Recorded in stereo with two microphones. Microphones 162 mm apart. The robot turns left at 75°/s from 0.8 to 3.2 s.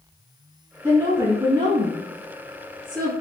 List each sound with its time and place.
0.8 s a woman speaking: 15° right (ahead or behind), 1.2 m; by 3.1 s 10° left (ahead or behind), 1.2 m